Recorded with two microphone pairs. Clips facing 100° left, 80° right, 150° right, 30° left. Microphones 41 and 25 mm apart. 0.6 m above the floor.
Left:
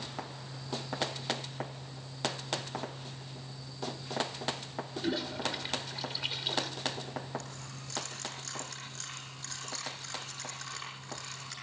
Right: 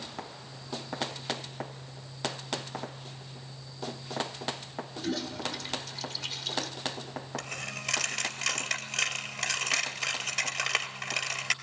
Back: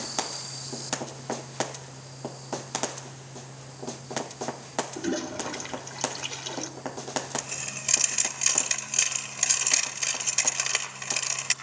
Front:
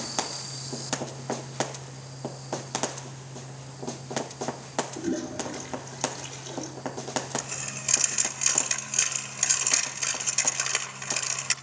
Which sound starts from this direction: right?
A dropped coin, at 7.4 s.